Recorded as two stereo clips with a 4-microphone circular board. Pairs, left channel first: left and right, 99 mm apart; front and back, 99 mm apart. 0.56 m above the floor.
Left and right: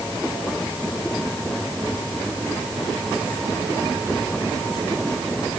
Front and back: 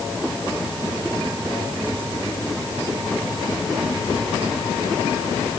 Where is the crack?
I don't hear a crack.